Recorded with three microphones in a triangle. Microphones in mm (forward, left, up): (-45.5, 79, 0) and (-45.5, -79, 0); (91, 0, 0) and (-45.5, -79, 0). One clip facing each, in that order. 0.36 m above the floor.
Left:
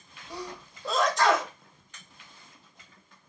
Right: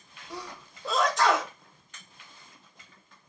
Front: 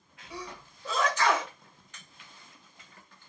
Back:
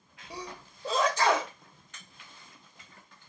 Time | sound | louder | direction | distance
0.3 | a sneeze | left 2 dB, even | straight behind | 1.5 m